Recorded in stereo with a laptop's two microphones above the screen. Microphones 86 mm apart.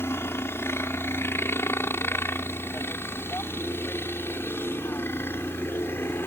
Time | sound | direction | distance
0.0 | a helicopter | 30° left (ahead or behind) | ?